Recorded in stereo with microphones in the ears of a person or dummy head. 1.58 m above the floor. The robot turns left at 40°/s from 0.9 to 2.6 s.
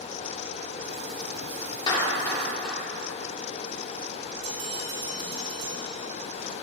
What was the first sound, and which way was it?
A clap, 25° left (ahead or behind).